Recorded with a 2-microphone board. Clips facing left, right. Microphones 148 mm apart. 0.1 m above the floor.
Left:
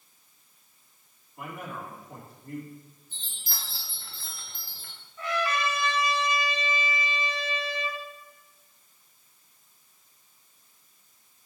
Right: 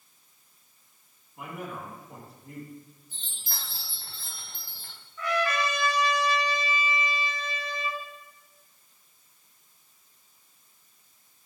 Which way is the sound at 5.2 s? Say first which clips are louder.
Right 1 dB; 25° left (ahead or behind).